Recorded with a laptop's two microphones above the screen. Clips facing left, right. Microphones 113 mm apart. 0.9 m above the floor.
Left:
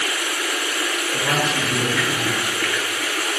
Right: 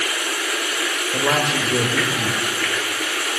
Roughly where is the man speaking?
Right.